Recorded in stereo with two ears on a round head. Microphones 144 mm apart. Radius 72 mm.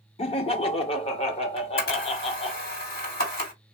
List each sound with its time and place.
0.2 s laughter: 35° left (ahead or behind), 0.6 m
1.6 s a camera shutter: 65° left (ahead or behind), 2.5 m